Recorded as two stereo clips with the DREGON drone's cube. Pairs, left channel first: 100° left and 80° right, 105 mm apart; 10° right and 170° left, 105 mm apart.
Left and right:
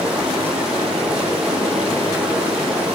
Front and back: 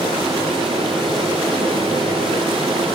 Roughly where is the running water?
Behind.